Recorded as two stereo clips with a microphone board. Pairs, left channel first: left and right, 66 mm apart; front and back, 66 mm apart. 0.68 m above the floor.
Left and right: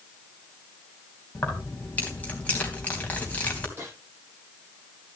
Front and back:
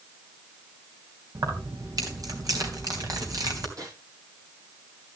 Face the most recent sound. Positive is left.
turn(degrees=-145)